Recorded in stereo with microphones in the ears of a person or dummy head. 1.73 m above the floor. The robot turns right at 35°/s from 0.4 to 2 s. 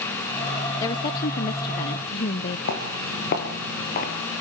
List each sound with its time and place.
0.8 s a woman speaking: 15° left (ahead or behind), 0.6 m; by 2.6 s 25° left (ahead or behind), 0.6 m
2.7 s footsteps: 55° left (ahead or behind), 3.5 m; by 4.1 s 45° left (ahead or behind), 2.5 m